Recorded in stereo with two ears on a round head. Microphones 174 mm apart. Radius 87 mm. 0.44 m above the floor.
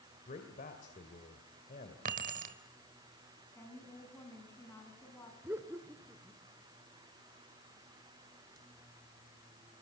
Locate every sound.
0.3 s a man speaking: 45° left (ahead or behind), 2.5 m
2.0 s keys jangling: 45° right (ahead or behind), 1.5 m
3.5 s a woman speaking: 15° left (ahead or behind), 5.5 m
5.4 s laughter: 10° right (ahead or behind), 1.6 m